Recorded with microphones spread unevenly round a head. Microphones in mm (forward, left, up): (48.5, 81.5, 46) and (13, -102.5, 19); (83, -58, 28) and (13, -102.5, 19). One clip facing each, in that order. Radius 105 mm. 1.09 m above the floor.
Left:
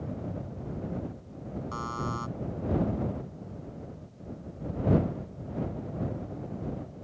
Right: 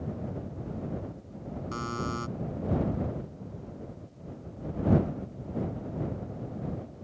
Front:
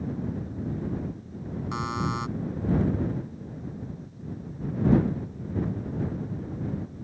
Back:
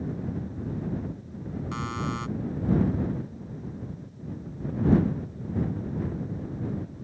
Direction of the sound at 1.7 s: 35° right.